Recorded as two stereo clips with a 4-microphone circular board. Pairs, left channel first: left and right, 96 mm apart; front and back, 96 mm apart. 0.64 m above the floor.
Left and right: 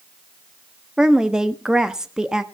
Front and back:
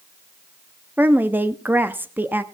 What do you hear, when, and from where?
1.0 s a woman speaking: 160° right, 0.6 m